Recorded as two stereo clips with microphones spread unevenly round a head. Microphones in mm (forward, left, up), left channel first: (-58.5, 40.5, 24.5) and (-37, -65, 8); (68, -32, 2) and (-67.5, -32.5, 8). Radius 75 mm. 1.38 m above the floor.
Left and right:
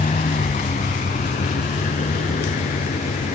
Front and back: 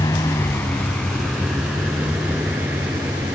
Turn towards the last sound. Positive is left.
turn(degrees=105)